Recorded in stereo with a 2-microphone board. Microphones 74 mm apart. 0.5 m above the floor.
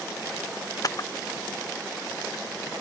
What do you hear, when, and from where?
0.8 s a camera shutter: 50° left (ahead or behind)